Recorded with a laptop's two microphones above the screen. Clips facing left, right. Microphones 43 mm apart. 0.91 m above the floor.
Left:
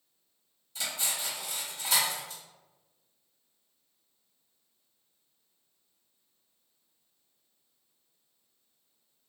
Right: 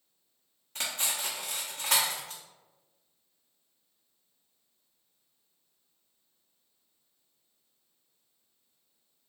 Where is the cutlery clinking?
55° right (ahead or behind), 0.6 m.